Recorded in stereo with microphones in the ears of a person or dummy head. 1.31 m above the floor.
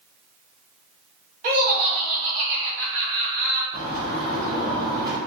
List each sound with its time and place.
1.4 s laughter: 40° right (ahead or behind), 0.9 m
3.7 s a bird: 25° right (ahead or behind), 0.9 m